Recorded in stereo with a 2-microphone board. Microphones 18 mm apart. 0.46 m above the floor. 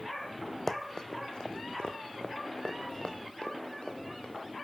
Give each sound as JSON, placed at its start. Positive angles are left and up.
{"t": 0.7, "sound": "running footsteps", "side_deg": 30, "distance_m": 0.8}